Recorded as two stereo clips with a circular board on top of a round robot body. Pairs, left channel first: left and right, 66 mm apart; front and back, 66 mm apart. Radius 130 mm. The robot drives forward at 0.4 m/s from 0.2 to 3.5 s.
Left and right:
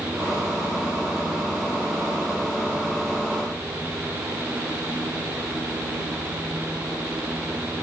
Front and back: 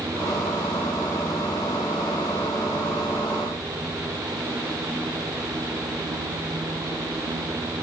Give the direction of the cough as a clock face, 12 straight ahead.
I don't hear a cough.